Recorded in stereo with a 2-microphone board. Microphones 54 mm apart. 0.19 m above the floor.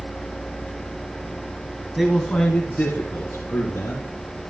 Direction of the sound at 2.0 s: 5° right (ahead or behind).